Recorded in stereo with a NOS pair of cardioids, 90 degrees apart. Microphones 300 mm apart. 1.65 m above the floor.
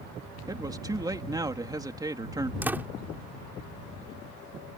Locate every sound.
0.5 s a man speaking: 10° right
2.6 s a door slam: 5° right